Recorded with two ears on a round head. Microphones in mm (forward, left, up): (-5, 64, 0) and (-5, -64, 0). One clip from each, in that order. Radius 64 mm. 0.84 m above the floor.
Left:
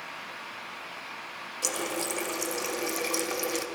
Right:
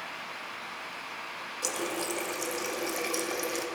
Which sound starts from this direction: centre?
A running tap, at 1.6 s.